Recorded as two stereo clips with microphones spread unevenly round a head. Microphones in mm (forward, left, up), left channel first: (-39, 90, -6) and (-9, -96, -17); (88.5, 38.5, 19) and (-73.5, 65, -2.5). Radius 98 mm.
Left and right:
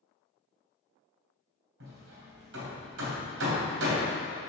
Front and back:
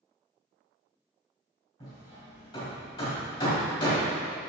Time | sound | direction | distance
1.8 | hammering | 75° right | 2.5 m